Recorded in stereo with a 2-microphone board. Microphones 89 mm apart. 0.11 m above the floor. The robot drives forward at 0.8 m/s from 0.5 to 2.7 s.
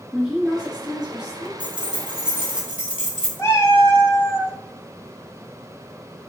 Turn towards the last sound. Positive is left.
turn(degrees=30)  # may be behind; listen again after turning